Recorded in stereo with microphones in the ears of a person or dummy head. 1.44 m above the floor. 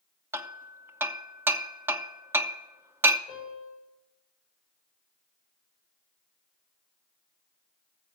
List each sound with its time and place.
0.3 s hammering: 15° right (ahead or behind), 0.7 m
3.3 s a piano: centre (ahead or behind), 7.5 m